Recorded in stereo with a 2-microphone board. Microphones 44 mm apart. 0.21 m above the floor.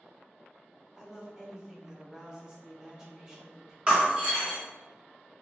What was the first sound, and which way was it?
A woman speaking, 20° right (ahead or behind).